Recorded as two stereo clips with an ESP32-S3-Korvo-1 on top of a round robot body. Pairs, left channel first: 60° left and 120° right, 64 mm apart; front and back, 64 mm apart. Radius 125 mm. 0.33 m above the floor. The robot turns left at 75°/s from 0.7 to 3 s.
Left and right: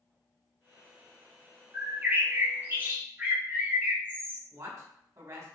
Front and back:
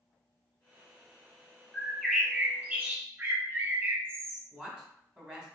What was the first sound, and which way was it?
A bird, 65° right.